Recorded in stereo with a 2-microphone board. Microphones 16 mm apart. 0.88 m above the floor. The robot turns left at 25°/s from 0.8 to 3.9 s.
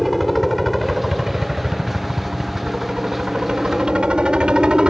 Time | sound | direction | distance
0.0 | a helicopter | 5° right (ahead or behind) | ?